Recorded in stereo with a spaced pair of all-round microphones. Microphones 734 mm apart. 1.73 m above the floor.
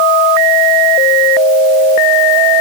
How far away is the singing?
No singing in this recording.